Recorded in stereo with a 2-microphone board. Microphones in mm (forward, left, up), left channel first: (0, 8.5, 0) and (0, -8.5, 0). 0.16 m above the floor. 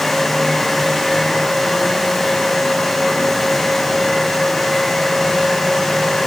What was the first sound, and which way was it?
Only background noise.